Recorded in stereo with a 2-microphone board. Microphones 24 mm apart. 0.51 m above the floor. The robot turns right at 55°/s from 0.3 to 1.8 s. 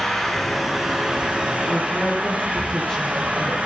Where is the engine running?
170° left, 8.5 m; by 3.7 s 105° right, 8.5 m.